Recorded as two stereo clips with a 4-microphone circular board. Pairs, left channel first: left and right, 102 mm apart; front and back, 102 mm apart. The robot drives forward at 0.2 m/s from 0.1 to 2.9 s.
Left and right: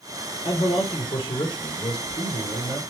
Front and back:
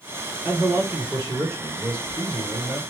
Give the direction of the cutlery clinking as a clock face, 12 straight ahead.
I don't hear cutlery clinking.